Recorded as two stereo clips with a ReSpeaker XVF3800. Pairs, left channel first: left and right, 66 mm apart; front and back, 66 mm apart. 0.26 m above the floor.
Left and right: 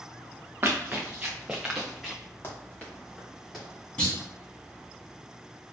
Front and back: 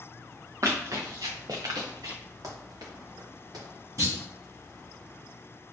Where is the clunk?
160° left, 1.9 m.